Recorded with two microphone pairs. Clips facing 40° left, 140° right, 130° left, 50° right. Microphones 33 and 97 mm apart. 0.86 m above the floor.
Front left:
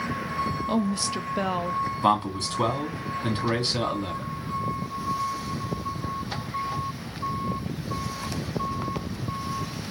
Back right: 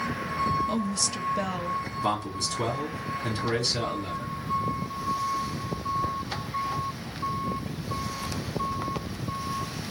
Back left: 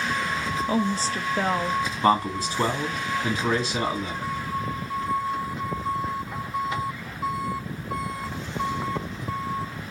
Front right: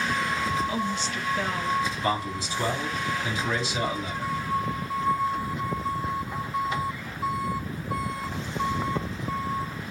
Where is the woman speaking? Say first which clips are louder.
Front left 3 dB, back left 4 dB; 100° left, 0.6 m.